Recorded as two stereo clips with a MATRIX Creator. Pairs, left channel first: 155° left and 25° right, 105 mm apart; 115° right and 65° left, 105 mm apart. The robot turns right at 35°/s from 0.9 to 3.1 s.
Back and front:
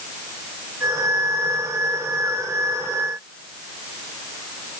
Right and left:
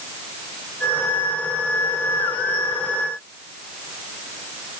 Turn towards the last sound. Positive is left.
No sound to turn to.